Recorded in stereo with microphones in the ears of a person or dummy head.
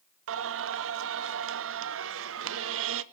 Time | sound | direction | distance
0.3 | singing | 65° right (ahead or behind) | 0.6 m